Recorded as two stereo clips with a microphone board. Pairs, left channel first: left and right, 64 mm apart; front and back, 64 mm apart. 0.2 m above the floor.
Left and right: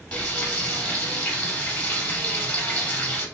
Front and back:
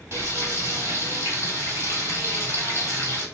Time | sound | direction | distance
0.1 | frying | 155° left | 1.5 m